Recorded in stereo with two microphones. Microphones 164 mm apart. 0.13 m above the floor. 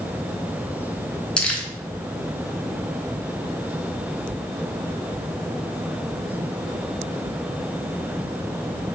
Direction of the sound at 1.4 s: 5° left (ahead or behind).